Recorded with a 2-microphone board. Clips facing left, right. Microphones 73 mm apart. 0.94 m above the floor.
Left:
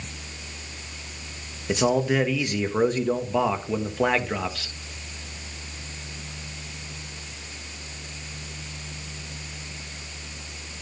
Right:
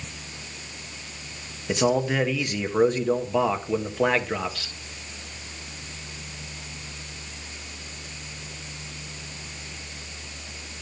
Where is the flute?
I don't hear a flute.